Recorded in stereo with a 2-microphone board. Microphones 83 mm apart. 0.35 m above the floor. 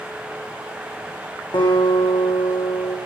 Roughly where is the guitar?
Left.